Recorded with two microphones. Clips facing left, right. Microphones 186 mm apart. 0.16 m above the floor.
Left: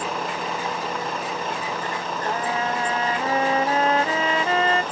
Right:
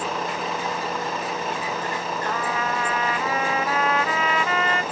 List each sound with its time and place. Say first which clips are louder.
0.0 s a vehicle: even; centre (ahead or behind); by 4.9 s 5° right (ahead or behind)
2.2 s a trumpet: left 3 dB; 30° left (ahead or behind)